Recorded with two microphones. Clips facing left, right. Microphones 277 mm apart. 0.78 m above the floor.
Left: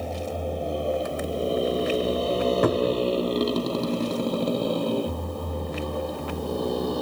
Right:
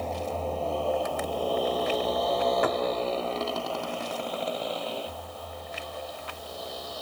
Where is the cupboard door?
50° left (ahead or behind).